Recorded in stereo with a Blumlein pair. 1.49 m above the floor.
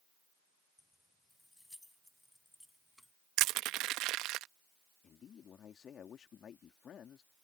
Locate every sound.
0.8 s keys jangling: 5° left; by 3.1 s straight ahead
3.4 s crushing: 40° right
5.0 s a man speaking: 25° left